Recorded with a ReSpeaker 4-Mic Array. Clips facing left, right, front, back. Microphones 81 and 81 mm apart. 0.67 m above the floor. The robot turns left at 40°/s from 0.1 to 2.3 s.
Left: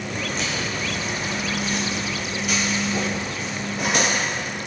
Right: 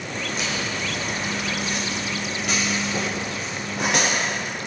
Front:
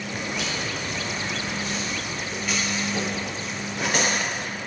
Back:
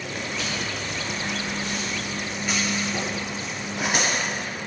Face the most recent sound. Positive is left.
turn(degrees=-100)